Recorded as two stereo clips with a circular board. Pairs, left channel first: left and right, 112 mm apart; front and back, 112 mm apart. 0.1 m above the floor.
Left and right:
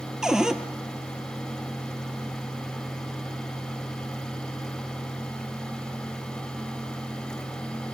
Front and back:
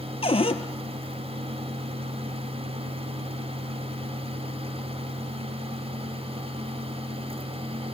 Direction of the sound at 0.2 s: 5° right.